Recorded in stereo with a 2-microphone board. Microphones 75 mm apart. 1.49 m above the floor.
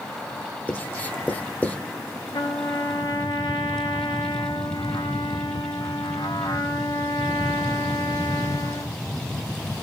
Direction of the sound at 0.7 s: 20° left (ahead or behind).